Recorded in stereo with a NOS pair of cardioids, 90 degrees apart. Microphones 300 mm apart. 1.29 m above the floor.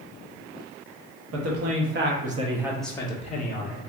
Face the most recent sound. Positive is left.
turn(degrees=40)